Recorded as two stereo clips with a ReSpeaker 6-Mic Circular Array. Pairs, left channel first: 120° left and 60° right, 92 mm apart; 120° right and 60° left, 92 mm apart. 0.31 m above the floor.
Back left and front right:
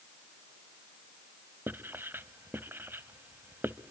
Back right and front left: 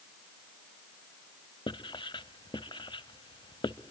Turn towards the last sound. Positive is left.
turn(degrees=-120)